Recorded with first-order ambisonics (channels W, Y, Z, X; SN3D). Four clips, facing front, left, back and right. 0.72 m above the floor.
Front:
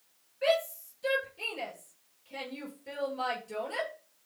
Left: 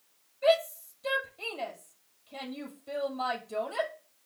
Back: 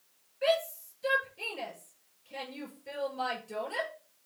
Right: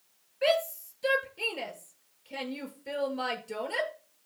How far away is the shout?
About 7 m.